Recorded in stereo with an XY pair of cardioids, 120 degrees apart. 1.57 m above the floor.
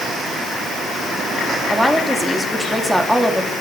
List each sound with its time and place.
1.7 s a woman speaking: straight ahead, 2.5 m